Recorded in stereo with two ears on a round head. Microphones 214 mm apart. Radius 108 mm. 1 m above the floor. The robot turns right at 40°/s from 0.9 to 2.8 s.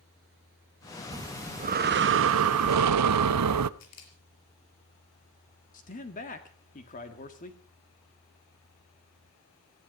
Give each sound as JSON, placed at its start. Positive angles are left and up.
{"t": 1.1, "sound": "breathing", "azimuth_deg": -165, "distance_m": 0.7}
{"t": 3.8, "sound": "a camera shutter", "side_deg": 80, "distance_m": 4.5}
{"t": 5.7, "sound": "a man speaking", "side_deg": 35, "distance_m": 1.7}